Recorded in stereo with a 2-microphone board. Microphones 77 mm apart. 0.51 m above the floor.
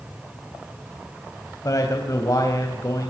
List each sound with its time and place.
1.6 s a man speaking: 45° left (ahead or behind), 3 m